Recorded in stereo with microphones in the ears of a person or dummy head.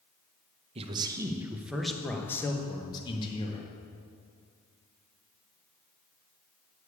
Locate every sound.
0.8 s a man speaking: 30° right (ahead or behind), 1.0 m; by 3.7 s 35° left (ahead or behind), 1.7 m